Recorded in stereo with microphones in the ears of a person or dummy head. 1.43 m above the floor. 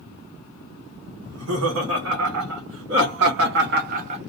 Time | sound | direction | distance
1.2 | laughter | 80° right | 1.9 m